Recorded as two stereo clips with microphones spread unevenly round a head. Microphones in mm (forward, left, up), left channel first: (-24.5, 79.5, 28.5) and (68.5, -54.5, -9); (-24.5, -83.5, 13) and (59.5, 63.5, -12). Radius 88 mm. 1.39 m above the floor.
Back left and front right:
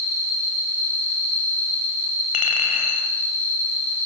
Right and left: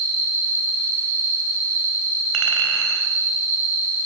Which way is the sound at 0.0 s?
5° right.